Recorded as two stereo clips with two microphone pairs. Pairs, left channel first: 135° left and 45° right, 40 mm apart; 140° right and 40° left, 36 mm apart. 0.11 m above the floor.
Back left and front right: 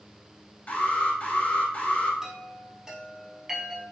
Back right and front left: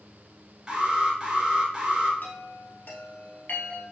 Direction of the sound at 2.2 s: 120° right.